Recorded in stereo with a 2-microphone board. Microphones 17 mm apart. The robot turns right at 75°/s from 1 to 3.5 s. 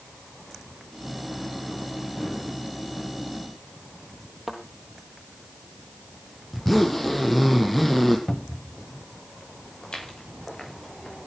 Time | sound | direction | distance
4.5 | a thud | 15° right (ahead or behind) | 3.5 m
6.5 | a zipper | 15° left (ahead or behind) | 3.5 m
8.3 | a cupboard door | 35° left (ahead or behind) | 0.7 m
9.8 | footsteps | 60° left (ahead or behind) | 8.5 m